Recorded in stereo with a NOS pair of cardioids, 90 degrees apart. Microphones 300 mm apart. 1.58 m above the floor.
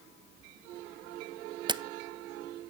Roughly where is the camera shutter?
Ahead.